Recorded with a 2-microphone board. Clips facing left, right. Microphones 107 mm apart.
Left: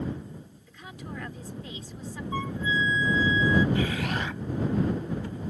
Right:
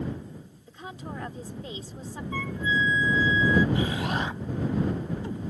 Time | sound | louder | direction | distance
0.7 | a woman speaking | right 3 dB | 30° right (ahead or behind) | ?
2.3 | a flute | right 1 dB | 20° left (ahead or behind) | ?
3.8 | an explosion | right 1 dB | 25° right (ahead or behind) | ?